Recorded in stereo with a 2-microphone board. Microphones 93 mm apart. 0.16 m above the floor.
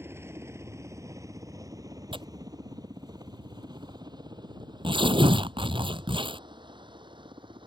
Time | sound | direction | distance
0.0 | a helicopter | 25° right (ahead or behind) | ?
2.1 | tearing paper | 65° right (ahead or behind) | ?